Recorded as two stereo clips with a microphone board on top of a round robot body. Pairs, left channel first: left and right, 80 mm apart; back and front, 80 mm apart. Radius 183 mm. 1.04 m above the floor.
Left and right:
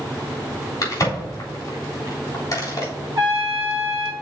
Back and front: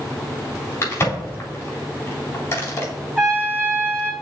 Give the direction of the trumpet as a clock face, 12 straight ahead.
3 o'clock.